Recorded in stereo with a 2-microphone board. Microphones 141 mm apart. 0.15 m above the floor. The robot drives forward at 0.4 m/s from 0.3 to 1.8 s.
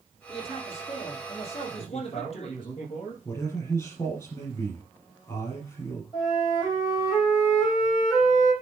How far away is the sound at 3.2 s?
About 4.5 m.